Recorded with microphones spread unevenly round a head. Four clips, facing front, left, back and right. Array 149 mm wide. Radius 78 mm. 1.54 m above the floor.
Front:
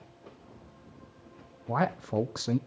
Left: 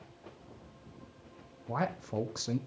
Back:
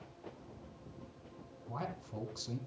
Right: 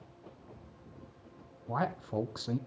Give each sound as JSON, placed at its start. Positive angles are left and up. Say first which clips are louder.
{"t": 1.7, "sound": "a man speaking", "louder": "even, front 14 dB", "azimuth_deg": 5, "distance_m": 0.8}